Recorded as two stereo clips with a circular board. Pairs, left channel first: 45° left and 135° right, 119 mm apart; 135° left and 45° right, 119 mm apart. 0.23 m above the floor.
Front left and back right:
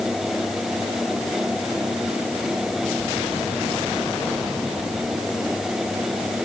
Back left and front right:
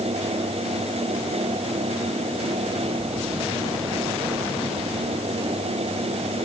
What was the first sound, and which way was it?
Only background noise.